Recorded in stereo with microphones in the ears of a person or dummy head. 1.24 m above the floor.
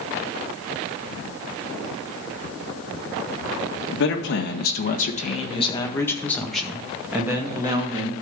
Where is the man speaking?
65° left (ahead or behind), 1.8 m; by 8.1 s 25° right (ahead or behind), 2.5 m.